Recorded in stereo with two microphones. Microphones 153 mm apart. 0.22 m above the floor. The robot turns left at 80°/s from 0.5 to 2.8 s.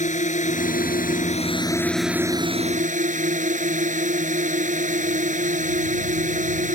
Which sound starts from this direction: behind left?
A drone, at 0.0 s.